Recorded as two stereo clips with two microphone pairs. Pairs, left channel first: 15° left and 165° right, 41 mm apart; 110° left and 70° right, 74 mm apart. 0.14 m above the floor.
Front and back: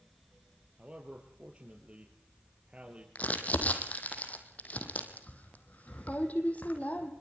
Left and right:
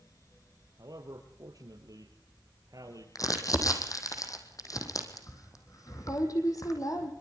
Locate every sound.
0.8 s a man speaking: 105° right, 3.5 m
3.1 s crumpling: 70° left, 4 m